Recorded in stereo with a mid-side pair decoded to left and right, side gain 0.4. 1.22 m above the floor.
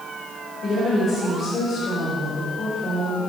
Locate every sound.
0.6 s a woman speaking: 65° left, 4 m